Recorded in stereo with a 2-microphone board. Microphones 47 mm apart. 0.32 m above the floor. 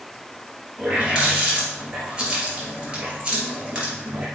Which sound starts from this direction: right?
A running tap, at 0.8 s.